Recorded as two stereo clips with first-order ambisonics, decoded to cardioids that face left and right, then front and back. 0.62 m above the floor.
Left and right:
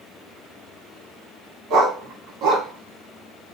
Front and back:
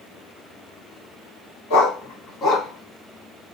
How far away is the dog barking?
About 1.3 m.